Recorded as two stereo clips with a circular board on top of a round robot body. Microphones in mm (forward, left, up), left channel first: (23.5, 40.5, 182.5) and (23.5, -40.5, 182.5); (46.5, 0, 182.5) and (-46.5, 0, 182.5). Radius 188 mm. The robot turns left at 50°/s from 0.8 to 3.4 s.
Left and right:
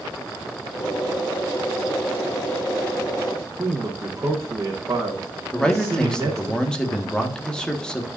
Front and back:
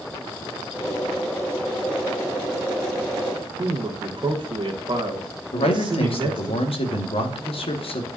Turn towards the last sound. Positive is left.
turn(degrees=10)